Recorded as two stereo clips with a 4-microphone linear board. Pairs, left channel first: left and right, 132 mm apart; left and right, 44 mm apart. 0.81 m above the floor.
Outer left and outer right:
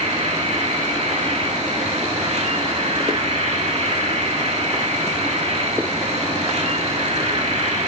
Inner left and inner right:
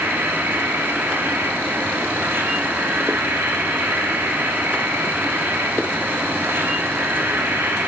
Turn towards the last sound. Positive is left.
turn(degrees=-55)  # may be behind; listen again after turning